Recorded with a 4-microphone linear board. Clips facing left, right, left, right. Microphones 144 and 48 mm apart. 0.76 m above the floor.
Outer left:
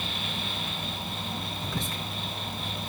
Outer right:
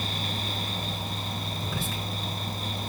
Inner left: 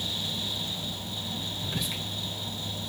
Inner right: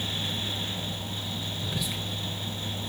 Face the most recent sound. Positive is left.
turn(degrees=-5)  # may be behind; listen again after turning